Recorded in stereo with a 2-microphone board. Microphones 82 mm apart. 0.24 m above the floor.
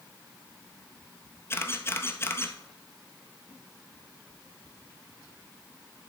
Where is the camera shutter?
30° left (ahead or behind), 1.0 m.